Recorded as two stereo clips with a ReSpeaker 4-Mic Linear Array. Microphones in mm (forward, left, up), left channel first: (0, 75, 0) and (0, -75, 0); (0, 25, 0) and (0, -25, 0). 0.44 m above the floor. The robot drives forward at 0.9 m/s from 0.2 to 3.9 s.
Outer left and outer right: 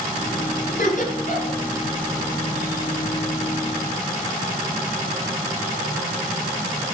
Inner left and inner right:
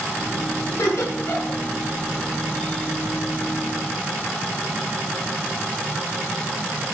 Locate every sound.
0.7 s laughter: 60° left (ahead or behind), 4.5 m; by 1.6 s 50° left (ahead or behind), 4.5 m